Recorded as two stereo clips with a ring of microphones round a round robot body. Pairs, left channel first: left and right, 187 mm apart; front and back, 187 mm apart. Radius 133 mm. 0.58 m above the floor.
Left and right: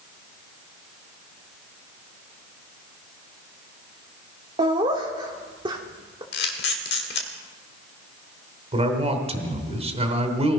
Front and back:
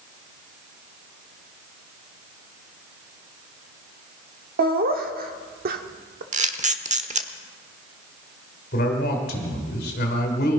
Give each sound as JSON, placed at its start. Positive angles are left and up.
{"t": 4.6, "sound": "laughter", "azimuth_deg": -155, "distance_m": 1.4}
{"t": 6.3, "sound": "a camera shutter", "azimuth_deg": 130, "distance_m": 1.2}
{"t": 8.7, "sound": "a man speaking", "azimuth_deg": -40, "distance_m": 2.5}